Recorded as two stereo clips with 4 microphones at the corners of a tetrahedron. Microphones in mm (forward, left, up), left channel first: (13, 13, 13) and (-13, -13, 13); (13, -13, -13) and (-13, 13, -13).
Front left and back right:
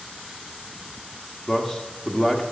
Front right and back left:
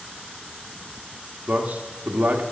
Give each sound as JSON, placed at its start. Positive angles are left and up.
{"t": 1.5, "sound": "a man speaking", "azimuth_deg": 120, "distance_m": 1.4}